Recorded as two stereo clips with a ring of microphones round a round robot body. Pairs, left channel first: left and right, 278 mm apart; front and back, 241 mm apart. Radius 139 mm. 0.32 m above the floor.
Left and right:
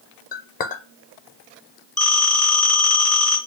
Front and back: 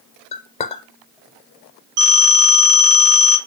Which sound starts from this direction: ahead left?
A clink, at 0.3 s.